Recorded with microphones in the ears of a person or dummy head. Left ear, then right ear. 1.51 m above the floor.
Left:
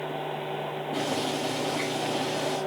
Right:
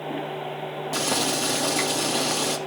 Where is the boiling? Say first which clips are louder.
Right 5 dB; 70° right (ahead or behind), 1.8 m.